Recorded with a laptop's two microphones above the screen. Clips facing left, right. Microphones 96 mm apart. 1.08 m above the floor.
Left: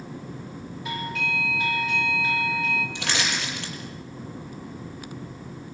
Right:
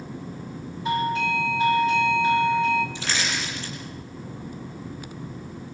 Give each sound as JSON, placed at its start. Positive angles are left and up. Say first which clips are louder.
{"t": 0.8, "sound": "a doorbell", "louder": "right 8 dB", "side_deg": -30, "distance_m": 3.0}
{"t": 3.0, "sound": "crushing", "louder": "even", "side_deg": 65, "distance_m": 7.5}